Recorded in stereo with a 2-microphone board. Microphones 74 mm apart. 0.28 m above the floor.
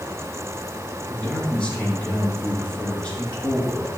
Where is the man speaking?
15° left (ahead or behind), 4 m.